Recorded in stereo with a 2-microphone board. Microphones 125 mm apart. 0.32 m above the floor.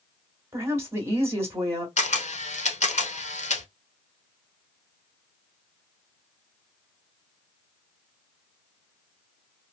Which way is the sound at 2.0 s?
70° left (ahead or behind).